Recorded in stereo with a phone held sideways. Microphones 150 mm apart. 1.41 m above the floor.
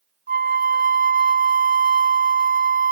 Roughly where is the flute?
Right.